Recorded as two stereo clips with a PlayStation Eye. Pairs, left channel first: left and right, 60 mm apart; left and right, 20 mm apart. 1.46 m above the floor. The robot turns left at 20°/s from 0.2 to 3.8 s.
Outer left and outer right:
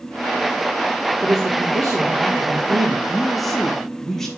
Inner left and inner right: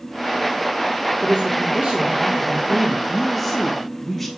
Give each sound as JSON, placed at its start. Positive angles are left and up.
{"t": 1.2, "sound": "a man speaking", "azimuth_deg": -75, "distance_m": 1.4}
{"t": 3.1, "sound": "a woman speaking", "side_deg": -5, "distance_m": 2.0}